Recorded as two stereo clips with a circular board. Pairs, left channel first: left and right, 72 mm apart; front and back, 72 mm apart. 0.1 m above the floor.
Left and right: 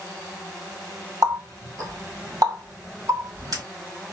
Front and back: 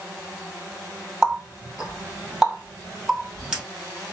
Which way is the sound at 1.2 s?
100° right.